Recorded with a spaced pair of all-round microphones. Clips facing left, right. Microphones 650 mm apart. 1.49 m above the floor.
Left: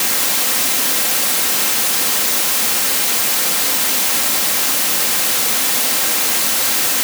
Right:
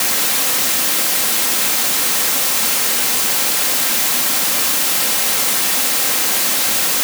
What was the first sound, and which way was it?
Only background noise.